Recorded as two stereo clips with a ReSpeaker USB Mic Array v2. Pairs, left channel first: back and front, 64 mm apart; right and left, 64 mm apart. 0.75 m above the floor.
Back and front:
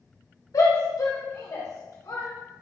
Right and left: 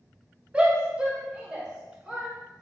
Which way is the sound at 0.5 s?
160° left.